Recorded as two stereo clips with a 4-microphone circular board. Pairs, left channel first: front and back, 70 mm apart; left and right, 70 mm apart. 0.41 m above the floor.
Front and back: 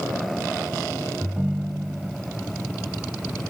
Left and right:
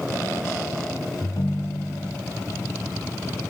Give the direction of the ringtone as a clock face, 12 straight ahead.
9 o'clock.